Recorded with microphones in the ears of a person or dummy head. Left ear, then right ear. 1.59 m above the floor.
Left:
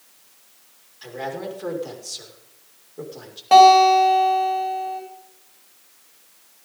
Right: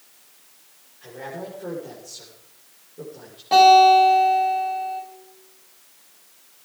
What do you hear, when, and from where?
1.0 s a man speaking: 90° left, 6 m
3.5 s a guitar: 30° left (ahead or behind), 8 m